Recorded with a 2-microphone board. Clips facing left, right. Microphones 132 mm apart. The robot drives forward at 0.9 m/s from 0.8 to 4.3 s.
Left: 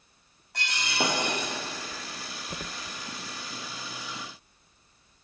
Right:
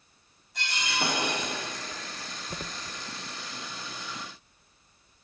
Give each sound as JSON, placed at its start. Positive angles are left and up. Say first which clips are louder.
{"t": 0.5, "sound": "breaking glass", "louder": "left 2 dB", "side_deg": 75, "distance_m": 2.5}